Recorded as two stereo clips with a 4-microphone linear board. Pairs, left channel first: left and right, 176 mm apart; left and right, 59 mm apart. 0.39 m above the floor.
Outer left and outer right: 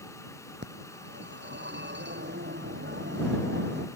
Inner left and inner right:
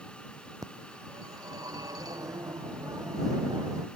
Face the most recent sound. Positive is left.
turn(degrees=-80)